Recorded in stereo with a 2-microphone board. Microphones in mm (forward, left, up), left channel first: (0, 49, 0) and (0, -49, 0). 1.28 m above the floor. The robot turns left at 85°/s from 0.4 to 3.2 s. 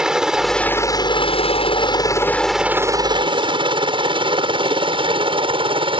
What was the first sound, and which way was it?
A helicopter, 5° right (ahead or behind).